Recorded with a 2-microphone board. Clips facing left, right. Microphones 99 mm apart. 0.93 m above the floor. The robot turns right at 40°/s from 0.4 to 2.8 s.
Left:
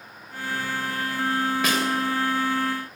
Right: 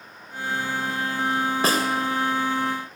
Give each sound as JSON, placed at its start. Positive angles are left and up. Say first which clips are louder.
{"t": 1.6, "sound": "a snare drum", "louder": "right 2 dB", "side_deg": -35, "distance_m": 3.0}